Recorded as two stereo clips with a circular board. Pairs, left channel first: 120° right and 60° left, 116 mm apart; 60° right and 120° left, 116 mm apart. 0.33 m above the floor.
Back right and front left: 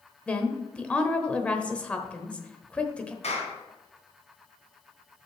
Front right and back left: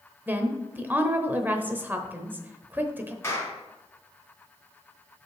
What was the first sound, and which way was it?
A woman speaking, 175° left.